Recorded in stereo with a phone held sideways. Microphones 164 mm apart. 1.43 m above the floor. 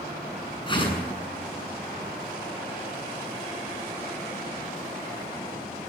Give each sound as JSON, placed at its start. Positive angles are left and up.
{"t": 0.7, "sound": "a whoosh", "side_deg": 30, "distance_m": 7.5}